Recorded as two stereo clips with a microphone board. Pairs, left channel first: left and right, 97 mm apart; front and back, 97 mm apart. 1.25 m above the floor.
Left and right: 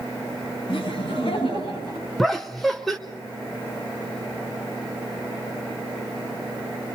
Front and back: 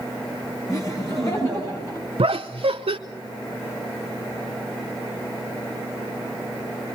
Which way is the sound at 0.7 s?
55° left.